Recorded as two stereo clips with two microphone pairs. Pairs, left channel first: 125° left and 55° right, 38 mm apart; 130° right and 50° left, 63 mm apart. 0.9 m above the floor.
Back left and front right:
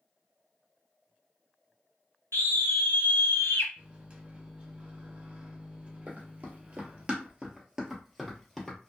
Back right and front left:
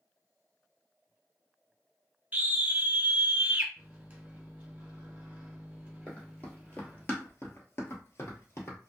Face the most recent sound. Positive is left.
turn(degrees=-160)